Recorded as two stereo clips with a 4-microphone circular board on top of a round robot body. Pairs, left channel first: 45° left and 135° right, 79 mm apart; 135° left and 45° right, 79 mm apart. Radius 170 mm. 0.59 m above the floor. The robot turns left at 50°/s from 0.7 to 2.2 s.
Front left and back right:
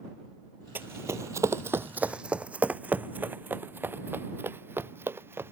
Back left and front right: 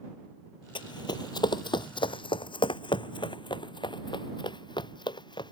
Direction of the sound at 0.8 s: 155° left.